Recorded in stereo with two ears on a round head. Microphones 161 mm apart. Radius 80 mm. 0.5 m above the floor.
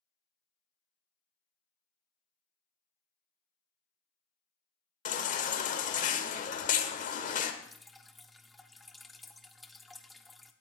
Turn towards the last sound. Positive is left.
turn(degrees=0)  # may be behind; listen again after turning